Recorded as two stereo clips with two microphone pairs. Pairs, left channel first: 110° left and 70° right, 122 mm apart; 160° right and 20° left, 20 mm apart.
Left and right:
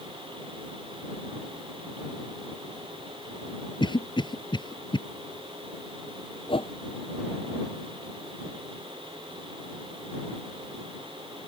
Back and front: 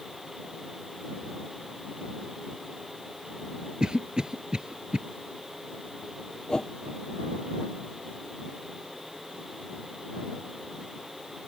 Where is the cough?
60° left.